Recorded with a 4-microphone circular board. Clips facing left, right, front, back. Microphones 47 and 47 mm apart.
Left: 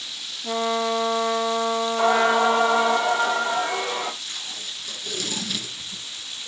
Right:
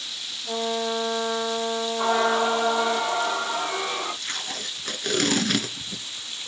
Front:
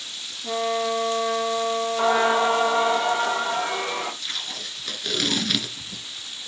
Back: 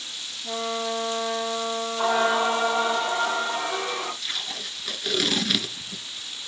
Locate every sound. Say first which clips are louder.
0.4 s a trumpet: left 3 dB, front 4 dB; 55° left, 3 m
2.0 s singing: left 3 dB, front 2 dB; 55° left, 9 m
4.2 s tape being pulled: right 3 dB, even; 95° right, 1.4 m